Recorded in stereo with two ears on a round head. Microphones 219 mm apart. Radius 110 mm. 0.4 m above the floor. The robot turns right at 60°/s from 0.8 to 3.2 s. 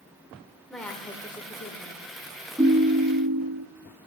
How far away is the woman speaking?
About 1.1 m.